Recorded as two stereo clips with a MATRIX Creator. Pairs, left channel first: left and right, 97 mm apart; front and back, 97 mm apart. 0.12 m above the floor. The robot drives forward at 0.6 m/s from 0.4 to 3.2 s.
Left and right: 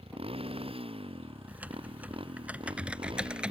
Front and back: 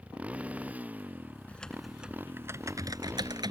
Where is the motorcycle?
105° right; by 3.5 s 115° right.